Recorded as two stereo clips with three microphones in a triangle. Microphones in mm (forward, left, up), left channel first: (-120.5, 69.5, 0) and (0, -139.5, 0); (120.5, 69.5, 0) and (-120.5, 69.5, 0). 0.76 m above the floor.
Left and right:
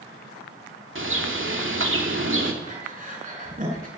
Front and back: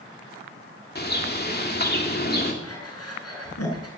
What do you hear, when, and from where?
0.9 s a bird: 40° right, 2.5 m
2.6 s breathing: 5° right, 5 m